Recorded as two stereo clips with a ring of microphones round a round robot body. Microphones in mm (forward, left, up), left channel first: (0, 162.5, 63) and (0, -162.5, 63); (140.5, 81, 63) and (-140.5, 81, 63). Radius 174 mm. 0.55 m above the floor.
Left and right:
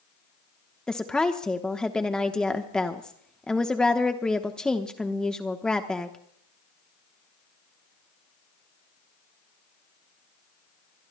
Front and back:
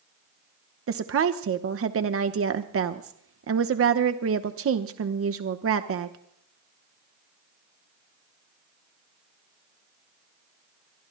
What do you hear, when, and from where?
0.9 s a woman speaking: 175° left, 1.0 m